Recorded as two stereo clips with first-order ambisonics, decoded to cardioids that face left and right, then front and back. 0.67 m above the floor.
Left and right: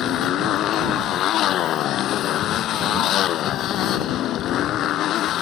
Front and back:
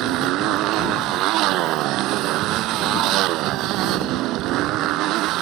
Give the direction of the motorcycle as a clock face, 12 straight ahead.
7 o'clock.